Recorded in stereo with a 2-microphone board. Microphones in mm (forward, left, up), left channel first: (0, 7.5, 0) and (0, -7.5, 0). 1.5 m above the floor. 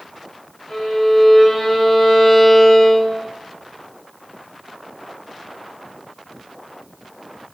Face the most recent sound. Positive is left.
turn(degrees=50)  # may be behind; listen again after turning